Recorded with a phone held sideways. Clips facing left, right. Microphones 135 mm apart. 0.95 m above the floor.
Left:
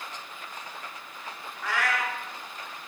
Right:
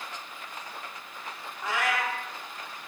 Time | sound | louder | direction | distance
1.6 | a cat meowing | even | 20° right (ahead or behind) | 0.5 m